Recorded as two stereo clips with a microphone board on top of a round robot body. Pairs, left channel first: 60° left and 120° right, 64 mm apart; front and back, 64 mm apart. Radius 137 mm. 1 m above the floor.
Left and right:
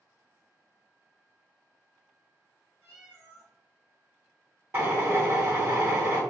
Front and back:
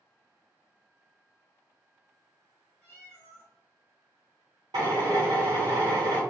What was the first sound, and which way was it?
A cat meowing, 85° right.